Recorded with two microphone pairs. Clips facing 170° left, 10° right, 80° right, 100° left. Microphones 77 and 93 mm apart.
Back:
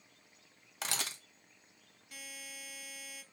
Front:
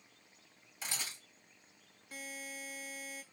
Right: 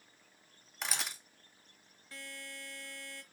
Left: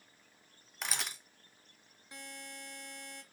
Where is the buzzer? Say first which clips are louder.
Front 5 dB, even; 35° left, 0.7 m.